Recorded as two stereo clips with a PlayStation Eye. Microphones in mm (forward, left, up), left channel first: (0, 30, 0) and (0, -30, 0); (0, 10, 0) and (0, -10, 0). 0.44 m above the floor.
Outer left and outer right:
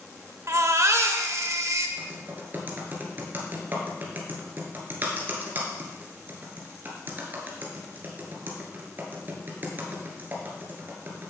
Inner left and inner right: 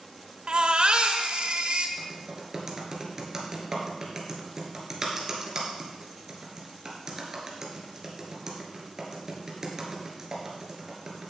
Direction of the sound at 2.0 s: 35° right (ahead or behind).